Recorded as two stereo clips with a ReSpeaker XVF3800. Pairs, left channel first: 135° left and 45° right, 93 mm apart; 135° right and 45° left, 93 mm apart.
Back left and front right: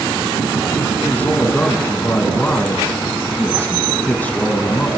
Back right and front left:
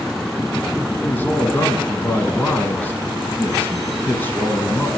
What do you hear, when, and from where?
1.0 s a man speaking: 175° right, 1.1 m